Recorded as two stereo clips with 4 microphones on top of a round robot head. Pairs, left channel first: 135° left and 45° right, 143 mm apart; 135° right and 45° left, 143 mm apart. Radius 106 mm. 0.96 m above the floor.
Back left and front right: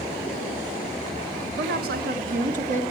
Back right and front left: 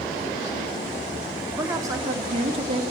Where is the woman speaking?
30° right, 2 m; by 2.8 s 5° right, 1.8 m.